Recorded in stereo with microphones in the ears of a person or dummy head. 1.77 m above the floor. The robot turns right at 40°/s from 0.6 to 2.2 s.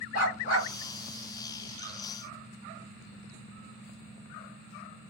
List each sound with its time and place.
0.1 s a dog barking: 50° left (ahead or behind), 2.5 m